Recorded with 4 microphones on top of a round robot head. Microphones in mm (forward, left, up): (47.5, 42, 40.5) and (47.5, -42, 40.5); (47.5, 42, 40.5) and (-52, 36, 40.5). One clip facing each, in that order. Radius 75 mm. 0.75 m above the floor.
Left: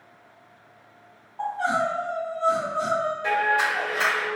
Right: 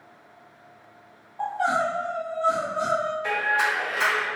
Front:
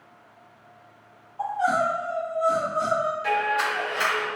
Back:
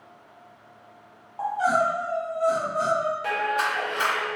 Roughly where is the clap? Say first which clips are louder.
Left 4 dB, front 1 dB; behind left.